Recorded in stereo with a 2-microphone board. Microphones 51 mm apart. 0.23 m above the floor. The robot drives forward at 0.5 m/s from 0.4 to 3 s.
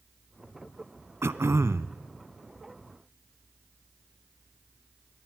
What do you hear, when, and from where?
1.2 s throat clearing: 60° right (ahead or behind), 0.7 m; by 1.9 s 65° right (ahead or behind), 0.7 m